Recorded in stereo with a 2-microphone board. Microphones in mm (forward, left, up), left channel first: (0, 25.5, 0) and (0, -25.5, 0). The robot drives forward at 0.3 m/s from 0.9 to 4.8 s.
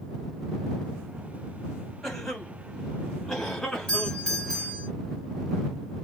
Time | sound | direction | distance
2.0 | a cough | 5° left (ahead or behind) | 1.8 m
3.9 | a doorbell | 20° left (ahead or behind) | 1.5 m